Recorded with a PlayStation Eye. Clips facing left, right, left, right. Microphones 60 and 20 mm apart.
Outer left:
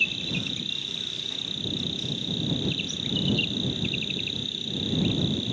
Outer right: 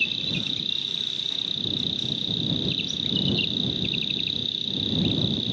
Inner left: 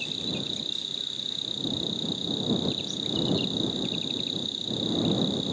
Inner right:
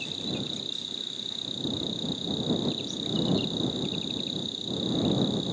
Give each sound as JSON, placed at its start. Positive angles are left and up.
{"t": 0.0, "sound": "an insect", "side_deg": 15}